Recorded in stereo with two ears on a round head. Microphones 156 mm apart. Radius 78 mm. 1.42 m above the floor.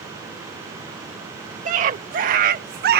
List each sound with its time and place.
1.6 s a scream: 45° right (ahead or behind); by 3.0 s 55° right (ahead or behind)